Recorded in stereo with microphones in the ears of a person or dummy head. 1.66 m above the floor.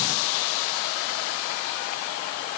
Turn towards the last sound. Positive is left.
No sound to turn to.